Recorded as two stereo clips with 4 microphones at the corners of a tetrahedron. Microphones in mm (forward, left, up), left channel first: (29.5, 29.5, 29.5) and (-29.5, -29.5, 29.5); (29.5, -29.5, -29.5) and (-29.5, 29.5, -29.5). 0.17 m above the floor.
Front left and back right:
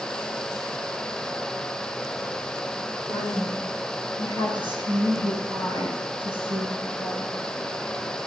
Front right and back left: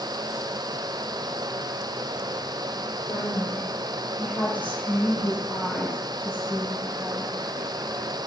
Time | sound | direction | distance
3.1 | a woman speaking | 110° right | 2.5 m